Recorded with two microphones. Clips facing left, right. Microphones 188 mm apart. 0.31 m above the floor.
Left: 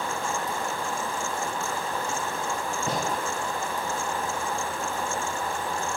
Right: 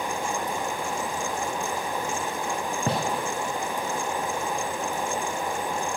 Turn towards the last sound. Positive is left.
turn(degrees=-55)  # may be behind; listen again after turning